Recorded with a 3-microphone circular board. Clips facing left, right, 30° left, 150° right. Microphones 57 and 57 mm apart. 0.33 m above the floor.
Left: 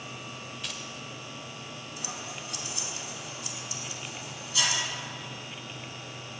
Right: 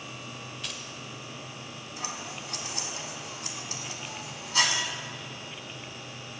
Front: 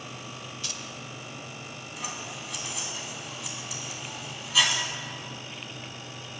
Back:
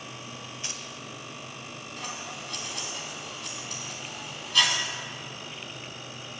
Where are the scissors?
55° right, 0.9 m.